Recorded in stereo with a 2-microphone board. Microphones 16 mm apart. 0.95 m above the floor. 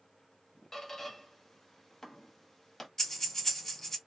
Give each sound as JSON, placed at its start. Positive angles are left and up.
{"t": 0.7, "sound": "a squeak", "side_deg": 25, "distance_m": 0.8}
{"t": 3.0, "sound": "breathing", "side_deg": 25, "distance_m": 1.6}